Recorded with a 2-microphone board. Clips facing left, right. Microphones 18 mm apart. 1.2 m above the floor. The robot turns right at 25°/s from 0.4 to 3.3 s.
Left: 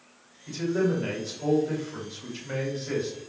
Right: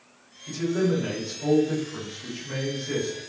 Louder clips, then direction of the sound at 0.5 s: Right 1 dB; 10° left.